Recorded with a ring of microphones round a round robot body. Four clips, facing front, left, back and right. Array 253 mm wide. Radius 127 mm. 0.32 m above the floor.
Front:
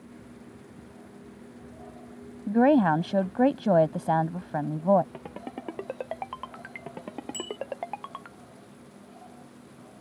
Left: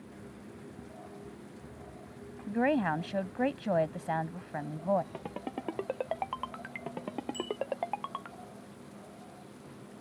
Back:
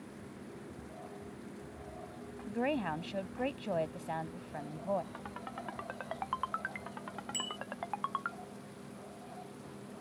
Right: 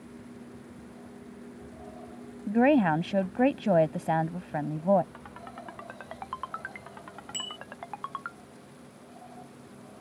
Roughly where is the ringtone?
Ahead left.